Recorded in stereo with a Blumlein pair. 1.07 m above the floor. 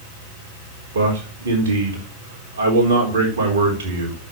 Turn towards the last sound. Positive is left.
turn(degrees=-60)